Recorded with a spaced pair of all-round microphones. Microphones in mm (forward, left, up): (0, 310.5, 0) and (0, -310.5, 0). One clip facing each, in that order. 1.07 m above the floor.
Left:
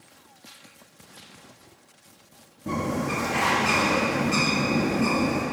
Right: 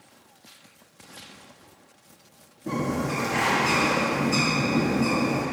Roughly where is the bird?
Left.